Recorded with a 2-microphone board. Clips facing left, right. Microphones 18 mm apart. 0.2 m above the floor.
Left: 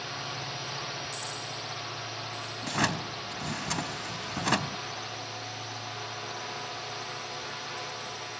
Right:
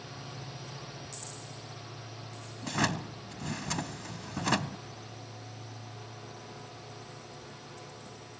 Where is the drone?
40° left (ahead or behind); by 8.4 s 45° left (ahead or behind).